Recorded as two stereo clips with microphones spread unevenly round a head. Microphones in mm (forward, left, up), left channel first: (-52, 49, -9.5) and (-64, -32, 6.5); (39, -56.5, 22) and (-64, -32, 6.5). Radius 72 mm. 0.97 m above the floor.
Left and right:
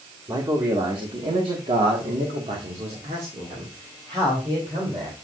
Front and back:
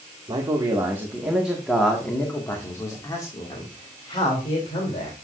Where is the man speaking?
135° right, 1.9 m; by 5.1 s 50° right, 3 m.